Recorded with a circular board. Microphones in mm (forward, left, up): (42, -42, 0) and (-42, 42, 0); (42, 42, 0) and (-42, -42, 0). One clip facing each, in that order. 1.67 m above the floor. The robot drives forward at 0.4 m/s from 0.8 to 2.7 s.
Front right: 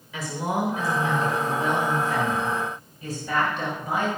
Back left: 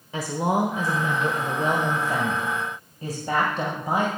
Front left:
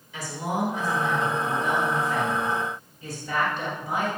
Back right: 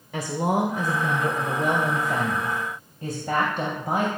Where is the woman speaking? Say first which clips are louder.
Back left 4 dB, back right 5 dB; 170° right, 1.3 m; by 4.1 s 175° right, 2 m.